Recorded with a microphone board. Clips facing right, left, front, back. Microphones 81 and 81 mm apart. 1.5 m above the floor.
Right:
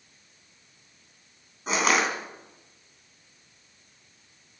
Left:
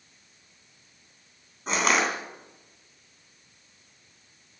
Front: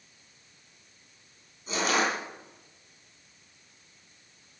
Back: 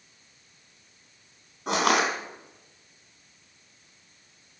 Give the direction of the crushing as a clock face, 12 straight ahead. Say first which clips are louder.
Even, back 4 dB; 6 o'clock.